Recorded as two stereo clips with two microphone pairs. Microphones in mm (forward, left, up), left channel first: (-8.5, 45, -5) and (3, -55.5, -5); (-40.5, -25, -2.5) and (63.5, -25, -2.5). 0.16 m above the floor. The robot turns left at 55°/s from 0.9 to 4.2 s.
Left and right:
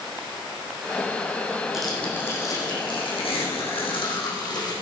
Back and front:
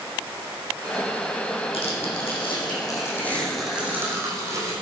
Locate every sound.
1.7 s tearing paper: 170° right, 6.5 m; by 4.7 s 55° left, 6.5 m